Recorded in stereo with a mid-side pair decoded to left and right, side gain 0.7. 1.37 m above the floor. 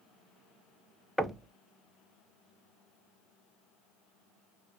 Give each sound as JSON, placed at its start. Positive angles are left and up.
{"t": 1.2, "sound": "knocking", "azimuth_deg": 0, "distance_m": 0.5}